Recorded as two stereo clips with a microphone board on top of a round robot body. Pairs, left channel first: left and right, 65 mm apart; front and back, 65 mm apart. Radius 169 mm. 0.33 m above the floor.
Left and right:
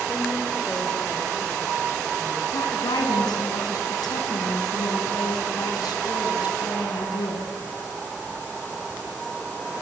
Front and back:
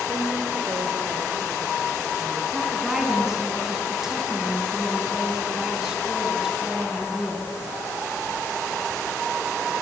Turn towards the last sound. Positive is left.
turn(degrees=100)